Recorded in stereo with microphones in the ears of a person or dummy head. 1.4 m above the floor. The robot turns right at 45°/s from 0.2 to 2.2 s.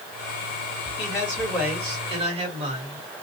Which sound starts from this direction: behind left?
A man speaking, at 1.0 s.